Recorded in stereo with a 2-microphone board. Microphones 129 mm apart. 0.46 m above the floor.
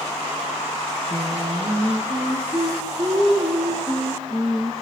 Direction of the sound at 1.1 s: 25° right (ahead or behind).